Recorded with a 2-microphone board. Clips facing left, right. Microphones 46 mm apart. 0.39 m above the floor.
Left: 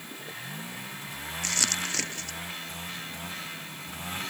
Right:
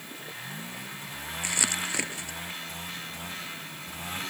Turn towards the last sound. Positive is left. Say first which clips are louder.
# right 1 dB
turn(degrees=-15)  # may be behind; listen again after turning